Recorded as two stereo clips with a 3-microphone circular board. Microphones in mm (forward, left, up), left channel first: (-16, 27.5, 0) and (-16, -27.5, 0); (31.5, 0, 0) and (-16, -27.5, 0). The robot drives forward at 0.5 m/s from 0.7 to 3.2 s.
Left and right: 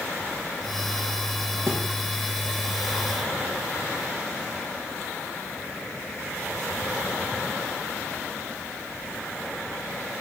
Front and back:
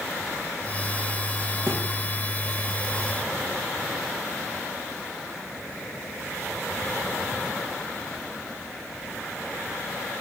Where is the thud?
120° right, 4 m.